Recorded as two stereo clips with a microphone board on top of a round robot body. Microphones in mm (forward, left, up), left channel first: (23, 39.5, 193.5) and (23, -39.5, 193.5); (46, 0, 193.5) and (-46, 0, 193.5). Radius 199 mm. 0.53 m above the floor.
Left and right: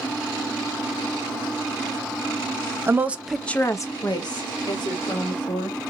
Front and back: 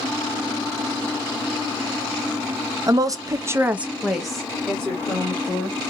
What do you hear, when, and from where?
2.9 s a woman speaking: 140° right, 1.1 m; by 5.8 s 75° left, 3 m